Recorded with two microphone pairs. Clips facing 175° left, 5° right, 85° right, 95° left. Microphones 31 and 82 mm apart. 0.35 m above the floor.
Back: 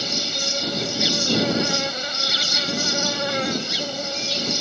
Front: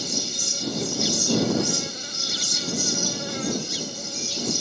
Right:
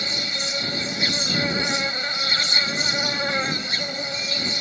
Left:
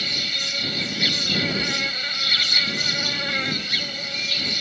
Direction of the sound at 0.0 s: 145° right.